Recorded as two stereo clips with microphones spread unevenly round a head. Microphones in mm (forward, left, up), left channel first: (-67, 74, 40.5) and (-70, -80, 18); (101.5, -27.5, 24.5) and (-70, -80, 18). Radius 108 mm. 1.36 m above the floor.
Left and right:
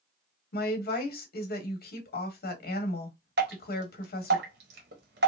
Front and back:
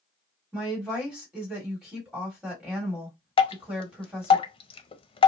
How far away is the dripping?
About 0.5 m.